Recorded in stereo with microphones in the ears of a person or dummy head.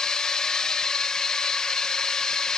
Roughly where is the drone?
Centre.